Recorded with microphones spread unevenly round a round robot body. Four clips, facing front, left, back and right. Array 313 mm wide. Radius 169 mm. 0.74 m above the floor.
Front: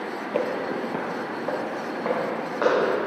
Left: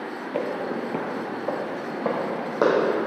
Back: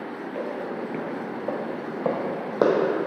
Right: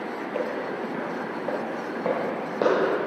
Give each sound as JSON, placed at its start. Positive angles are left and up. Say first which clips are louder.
{"t": 0.3, "sound": "footsteps", "louder": "left 3 dB, front 5 dB", "azimuth_deg": 30, "distance_m": 0.9}